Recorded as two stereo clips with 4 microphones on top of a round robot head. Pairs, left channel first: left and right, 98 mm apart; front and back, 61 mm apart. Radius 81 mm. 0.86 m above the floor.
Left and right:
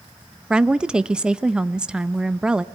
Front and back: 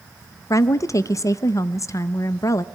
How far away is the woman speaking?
About 0.5 m.